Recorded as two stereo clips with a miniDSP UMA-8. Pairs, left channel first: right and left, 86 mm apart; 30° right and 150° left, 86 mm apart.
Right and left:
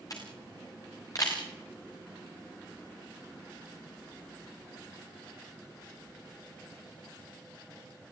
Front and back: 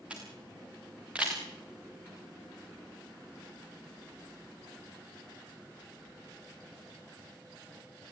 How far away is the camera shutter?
About 6 m.